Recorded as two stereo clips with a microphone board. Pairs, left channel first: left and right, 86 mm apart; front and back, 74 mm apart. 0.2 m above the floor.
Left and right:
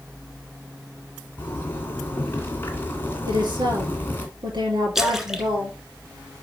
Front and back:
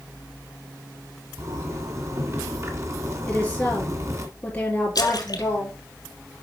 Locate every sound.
1.4 s a zipper: 150° left, 2 m
3.3 s a woman speaking: 70° right, 3.5 m
5.0 s a splash: 5° right, 1.3 m